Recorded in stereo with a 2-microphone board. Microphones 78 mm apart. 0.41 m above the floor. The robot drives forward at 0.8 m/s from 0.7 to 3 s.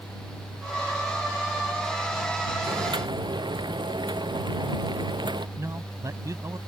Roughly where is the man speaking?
Right.